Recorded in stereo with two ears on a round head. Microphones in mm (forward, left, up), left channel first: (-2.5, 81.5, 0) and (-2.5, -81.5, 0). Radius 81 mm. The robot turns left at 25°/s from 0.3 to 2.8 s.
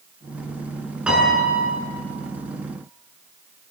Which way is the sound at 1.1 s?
5° right (ahead or behind).